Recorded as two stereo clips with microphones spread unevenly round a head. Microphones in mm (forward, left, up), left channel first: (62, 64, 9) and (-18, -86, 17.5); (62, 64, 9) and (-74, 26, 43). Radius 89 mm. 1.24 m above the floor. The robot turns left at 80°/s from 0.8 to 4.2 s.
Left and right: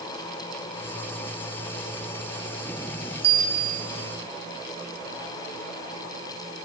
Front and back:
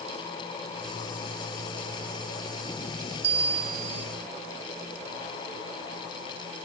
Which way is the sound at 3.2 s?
155° right.